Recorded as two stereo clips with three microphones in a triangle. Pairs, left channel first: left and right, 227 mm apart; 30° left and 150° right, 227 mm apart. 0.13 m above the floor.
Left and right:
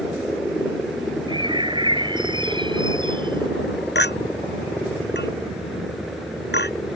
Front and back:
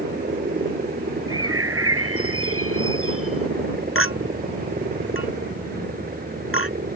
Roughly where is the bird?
Behind.